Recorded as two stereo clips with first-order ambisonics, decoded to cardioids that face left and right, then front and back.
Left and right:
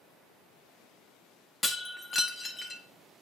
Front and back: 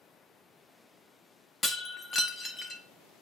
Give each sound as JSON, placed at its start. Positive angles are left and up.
{"t": 1.6, "sound": "breaking glass", "azimuth_deg": 40, "distance_m": 0.8}